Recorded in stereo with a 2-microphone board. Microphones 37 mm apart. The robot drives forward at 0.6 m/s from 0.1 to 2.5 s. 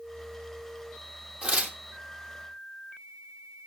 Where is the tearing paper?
35° right (ahead or behind), 1.7 m; by 1.8 s 40° right (ahead or behind), 1.5 m.